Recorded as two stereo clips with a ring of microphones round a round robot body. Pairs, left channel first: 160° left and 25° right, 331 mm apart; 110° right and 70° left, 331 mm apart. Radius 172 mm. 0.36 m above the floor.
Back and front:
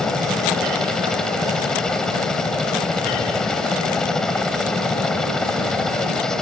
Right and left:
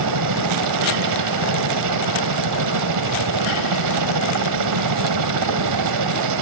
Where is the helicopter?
70° left.